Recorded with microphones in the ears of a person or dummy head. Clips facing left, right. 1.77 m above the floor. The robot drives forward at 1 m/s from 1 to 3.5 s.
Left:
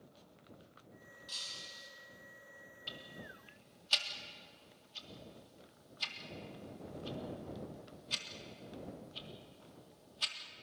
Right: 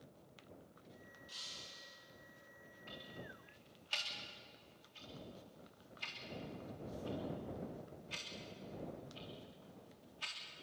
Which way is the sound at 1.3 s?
60° left (ahead or behind).